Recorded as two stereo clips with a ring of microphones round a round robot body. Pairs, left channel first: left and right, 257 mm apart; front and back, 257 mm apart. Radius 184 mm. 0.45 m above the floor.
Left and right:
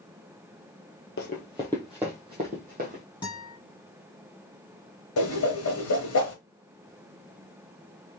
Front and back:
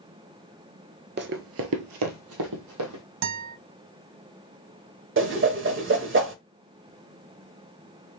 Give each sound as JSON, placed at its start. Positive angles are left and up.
{"t": 1.2, "sound": "running footsteps", "azimuth_deg": 135, "distance_m": 0.6}
{"t": 3.2, "sound": "a guitar", "azimuth_deg": 170, "distance_m": 0.5}
{"t": 5.2, "sound": "a whoosh", "azimuth_deg": 135, "distance_m": 0.9}